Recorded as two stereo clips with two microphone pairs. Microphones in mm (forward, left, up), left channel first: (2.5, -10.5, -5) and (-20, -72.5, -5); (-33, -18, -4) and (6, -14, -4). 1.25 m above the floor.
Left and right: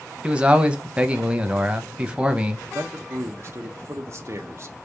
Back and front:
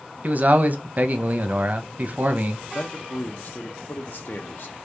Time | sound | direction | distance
0.2 | a man speaking | 40° right | 0.8 m
2.8 | a man speaking | 155° right | 0.7 m